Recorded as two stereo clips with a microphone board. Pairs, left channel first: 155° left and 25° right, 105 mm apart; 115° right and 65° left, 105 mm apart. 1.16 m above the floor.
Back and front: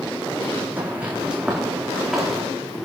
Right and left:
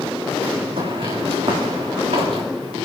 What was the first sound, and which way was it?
Footsteps, 50° left.